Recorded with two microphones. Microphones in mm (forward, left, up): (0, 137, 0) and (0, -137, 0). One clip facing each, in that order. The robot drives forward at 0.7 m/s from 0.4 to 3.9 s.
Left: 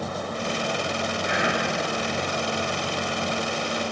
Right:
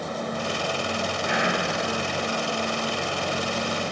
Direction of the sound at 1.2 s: 20° left (ahead or behind).